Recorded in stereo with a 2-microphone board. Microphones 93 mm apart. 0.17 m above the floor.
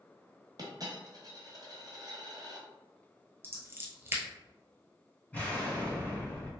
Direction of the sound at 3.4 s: 25° right (ahead or behind).